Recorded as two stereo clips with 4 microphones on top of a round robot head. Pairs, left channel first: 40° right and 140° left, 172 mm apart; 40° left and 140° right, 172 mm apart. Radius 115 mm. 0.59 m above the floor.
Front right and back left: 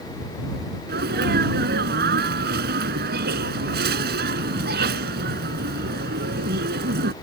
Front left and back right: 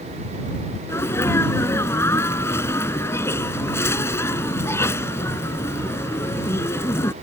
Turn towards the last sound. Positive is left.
turn(degrees=115)